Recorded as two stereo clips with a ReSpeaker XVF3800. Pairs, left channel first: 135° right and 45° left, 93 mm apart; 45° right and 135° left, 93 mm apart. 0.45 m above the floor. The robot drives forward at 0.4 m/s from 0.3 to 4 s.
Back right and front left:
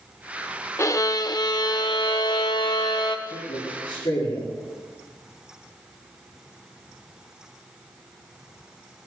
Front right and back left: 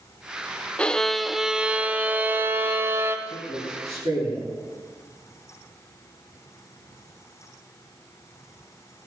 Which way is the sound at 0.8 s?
110° right.